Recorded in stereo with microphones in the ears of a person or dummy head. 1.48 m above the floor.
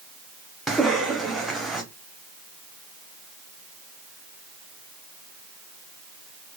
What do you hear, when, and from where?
0.7 s a cough: 5° right (ahead or behind), 0.7 m